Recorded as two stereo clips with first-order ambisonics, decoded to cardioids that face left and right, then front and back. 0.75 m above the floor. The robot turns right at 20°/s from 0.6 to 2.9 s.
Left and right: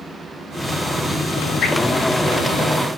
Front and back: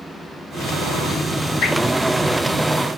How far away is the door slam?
No door slam in this recording.